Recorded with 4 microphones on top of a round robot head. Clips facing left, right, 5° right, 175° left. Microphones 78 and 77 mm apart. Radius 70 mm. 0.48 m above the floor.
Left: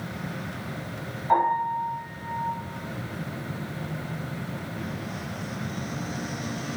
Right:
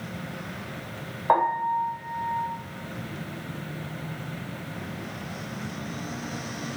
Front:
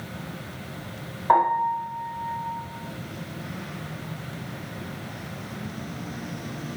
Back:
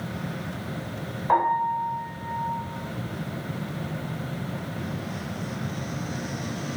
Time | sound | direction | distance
1.3 | a piano | 80° right | 1.1 m